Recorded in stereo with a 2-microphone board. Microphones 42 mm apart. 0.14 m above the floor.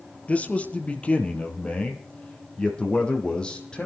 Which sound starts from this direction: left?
A man speaking, at 0.3 s.